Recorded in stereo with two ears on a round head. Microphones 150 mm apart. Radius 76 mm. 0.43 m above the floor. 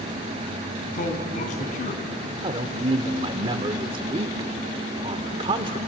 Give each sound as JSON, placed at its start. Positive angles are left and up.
{"t": 0.9, "sound": "a man speaking", "side_deg": 55, "distance_m": 3.5}
{"t": 2.4, "sound": "a man speaking", "side_deg": -30, "distance_m": 1.1}